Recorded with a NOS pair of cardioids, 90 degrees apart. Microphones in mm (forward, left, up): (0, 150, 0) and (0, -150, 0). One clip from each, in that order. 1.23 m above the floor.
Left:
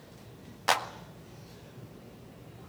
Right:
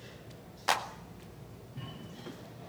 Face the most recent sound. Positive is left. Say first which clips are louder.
# left 3 dB
turn(degrees=15)